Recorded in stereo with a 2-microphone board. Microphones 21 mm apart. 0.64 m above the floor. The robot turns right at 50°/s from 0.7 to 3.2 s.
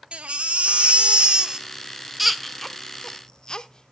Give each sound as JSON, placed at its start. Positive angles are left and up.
{"t": 0.1, "sound": "a baby crying", "side_deg": -80, "distance_m": 0.6}